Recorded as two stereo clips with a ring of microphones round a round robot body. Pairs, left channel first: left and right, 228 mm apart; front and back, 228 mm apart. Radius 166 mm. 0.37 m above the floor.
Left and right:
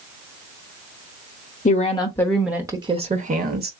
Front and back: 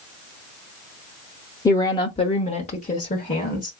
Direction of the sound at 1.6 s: 65° left.